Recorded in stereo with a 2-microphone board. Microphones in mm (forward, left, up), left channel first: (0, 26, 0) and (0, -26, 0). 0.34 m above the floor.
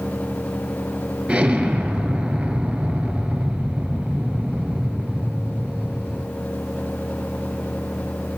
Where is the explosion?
15° right (ahead or behind), 1.1 m.